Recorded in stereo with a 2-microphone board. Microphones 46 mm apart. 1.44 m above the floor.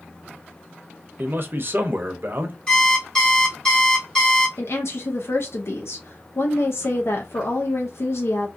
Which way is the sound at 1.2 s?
45° right (ahead or behind).